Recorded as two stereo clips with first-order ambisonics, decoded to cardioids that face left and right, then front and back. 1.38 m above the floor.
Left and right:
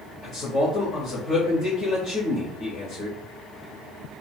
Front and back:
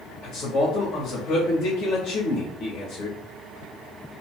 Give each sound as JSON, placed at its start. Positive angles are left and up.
{"t": 0.2, "sound": "a man speaking", "azimuth_deg": 5, "distance_m": 1.4}